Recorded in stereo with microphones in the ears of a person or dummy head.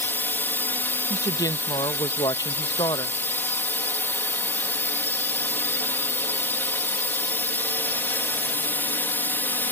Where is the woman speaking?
20° left (ahead or behind).